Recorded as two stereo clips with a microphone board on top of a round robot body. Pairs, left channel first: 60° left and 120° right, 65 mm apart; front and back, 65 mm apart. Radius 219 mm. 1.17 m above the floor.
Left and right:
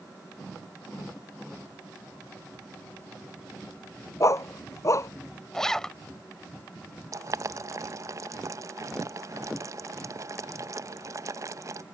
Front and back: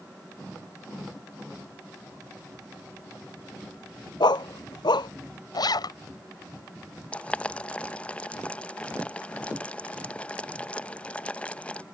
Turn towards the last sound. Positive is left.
turn(degrees=-70)